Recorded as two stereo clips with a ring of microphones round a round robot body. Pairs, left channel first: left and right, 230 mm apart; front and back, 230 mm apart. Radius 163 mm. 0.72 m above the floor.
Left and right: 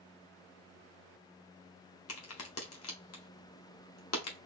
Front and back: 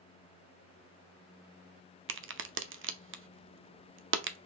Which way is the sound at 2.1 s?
140° left.